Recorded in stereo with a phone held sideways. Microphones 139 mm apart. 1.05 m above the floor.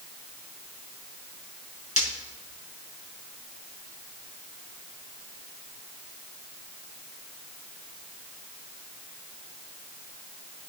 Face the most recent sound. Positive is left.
turn(degrees=60)  # may be behind; listen again after turning